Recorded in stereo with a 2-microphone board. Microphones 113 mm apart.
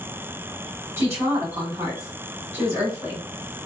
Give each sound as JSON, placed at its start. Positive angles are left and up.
{"t": 1.0, "sound": "a woman speaking", "side_deg": -25, "distance_m": 1.8}